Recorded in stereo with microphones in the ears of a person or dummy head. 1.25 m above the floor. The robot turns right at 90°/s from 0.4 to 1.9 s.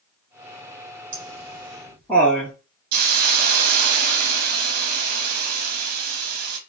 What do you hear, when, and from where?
1.1 s laughter: 60° right (ahead or behind), 3 m; by 2.5 s 5° left (ahead or behind), 3 m
2.9 s a hiss: 55° right (ahead or behind), 1.0 m